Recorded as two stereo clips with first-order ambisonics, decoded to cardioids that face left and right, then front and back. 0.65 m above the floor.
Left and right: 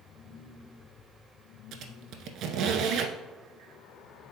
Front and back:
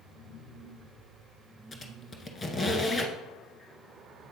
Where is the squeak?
70° right, 0.8 m.